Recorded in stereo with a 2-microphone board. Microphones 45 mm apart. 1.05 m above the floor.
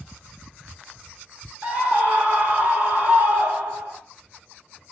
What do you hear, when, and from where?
1.6 s a scream: 30° right (ahead or behind), 3.5 m; by 4.0 s 35° right (ahead or behind), 5 m